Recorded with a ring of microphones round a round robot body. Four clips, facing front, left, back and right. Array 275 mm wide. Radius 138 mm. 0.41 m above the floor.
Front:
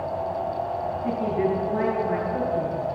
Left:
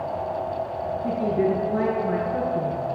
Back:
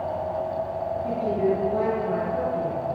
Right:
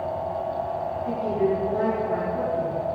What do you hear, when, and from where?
1.0 s a woman speaking: 75° left, 6.5 m